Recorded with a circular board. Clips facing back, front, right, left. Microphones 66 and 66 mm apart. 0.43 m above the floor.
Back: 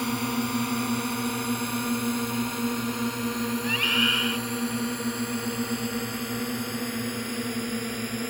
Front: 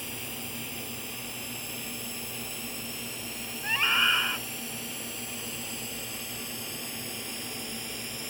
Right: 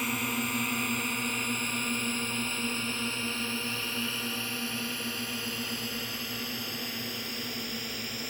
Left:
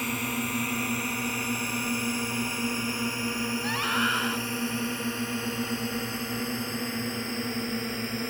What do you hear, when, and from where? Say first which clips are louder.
0.0 s a drone: back 13 dB, left 1 dB; straight behind; by 8.3 s 145° left
3.6 s a scream: front 2 dB, left 8 dB; 70° left